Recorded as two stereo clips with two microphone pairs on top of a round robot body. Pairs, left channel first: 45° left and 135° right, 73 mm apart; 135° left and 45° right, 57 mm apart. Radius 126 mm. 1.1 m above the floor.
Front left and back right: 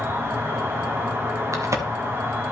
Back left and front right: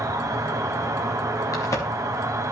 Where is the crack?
170° left, 0.9 m.